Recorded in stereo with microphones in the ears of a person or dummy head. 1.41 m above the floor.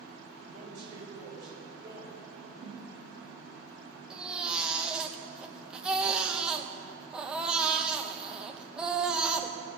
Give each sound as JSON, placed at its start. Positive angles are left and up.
{"t": 0.5, "sound": "a man speaking", "side_deg": -20, "distance_m": 4.5}
{"t": 2.6, "sound": "a whoosh", "side_deg": -30, "distance_m": 3.0}
{"t": 4.1, "sound": "a baby crying", "side_deg": 0, "distance_m": 0.9}